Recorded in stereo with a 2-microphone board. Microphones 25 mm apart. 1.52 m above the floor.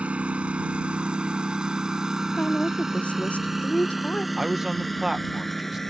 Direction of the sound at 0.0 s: 55° right (ahead or behind).